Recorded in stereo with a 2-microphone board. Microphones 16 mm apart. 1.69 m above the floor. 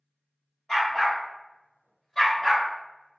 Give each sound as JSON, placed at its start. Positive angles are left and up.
{"t": 0.7, "sound": "a dog barking", "side_deg": 40, "distance_m": 1.9}